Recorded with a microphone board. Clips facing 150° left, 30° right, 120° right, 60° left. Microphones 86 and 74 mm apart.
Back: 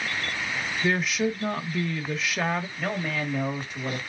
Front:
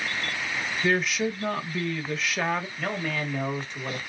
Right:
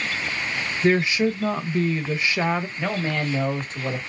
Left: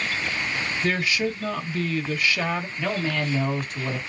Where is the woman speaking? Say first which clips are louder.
Even, right 6 dB; 125° right, 1.0 m.